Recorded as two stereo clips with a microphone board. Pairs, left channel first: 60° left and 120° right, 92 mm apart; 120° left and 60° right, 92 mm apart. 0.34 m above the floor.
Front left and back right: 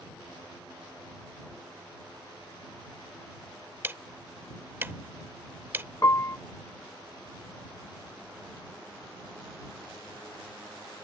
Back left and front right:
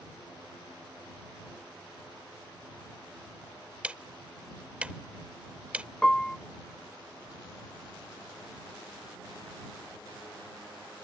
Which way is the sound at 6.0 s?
45° left.